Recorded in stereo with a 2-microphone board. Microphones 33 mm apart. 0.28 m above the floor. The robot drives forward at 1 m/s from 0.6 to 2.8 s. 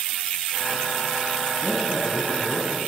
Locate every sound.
1.6 s a man speaking: 10° left (ahead or behind), 2.5 m